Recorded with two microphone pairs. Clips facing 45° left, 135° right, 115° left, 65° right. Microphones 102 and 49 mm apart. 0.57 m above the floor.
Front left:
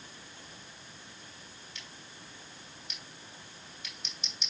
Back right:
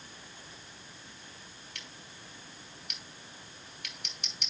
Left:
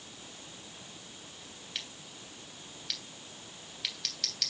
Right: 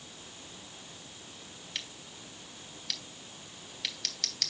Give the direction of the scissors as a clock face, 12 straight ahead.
5 o'clock.